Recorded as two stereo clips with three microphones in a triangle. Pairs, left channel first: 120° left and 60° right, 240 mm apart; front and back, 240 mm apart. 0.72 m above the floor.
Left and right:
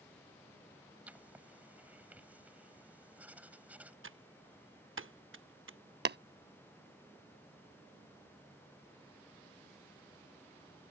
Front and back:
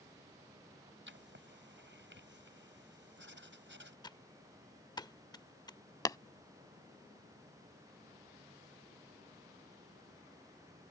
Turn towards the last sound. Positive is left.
turn(degrees=-65)